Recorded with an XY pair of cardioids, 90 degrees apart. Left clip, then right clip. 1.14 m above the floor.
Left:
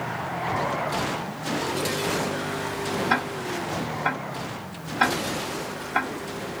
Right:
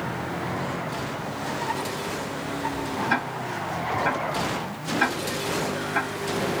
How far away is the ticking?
About 1.3 m.